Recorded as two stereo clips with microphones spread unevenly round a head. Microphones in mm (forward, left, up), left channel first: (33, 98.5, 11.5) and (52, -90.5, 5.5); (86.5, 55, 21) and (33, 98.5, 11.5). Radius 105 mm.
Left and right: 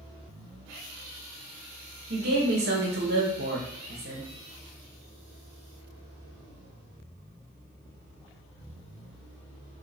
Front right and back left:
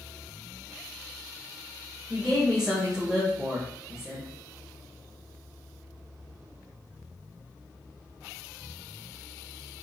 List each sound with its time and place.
2.1 s a woman speaking: 130° right, 1.1 m